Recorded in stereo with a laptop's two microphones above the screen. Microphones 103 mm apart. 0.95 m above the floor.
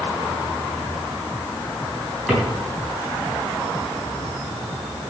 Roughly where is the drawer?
Centre.